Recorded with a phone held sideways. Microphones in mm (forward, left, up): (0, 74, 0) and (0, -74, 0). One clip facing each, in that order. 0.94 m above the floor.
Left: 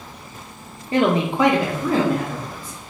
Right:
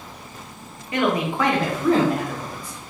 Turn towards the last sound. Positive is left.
turn(degrees=-10)  # may be behind; listen again after turning